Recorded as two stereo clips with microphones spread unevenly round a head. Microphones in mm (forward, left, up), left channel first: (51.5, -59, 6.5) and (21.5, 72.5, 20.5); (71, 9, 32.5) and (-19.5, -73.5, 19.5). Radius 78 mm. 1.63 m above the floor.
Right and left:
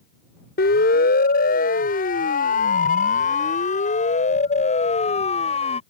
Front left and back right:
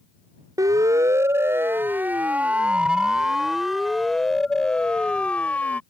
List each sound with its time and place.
0.6 s a siren: 75° right; by 5.8 s 35° right